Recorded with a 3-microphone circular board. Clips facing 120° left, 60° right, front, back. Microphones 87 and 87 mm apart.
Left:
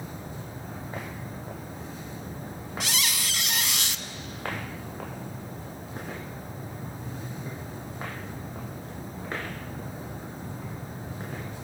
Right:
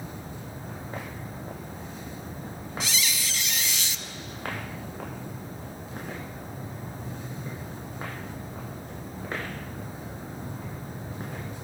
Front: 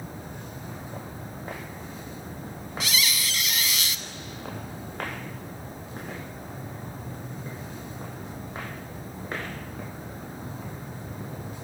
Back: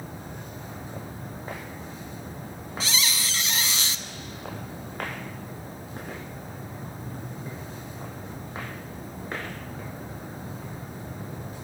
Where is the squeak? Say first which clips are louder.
Left 1 dB, even; 125° left, 0.9 m.